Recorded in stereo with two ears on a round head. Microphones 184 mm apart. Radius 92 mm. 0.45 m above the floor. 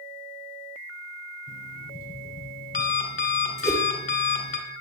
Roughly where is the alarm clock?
Left.